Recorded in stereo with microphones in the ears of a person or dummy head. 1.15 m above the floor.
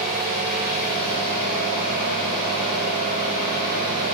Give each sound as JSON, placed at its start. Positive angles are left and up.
{"t": 0.0, "sound": "an engine running", "side_deg": 75, "distance_m": 3.0}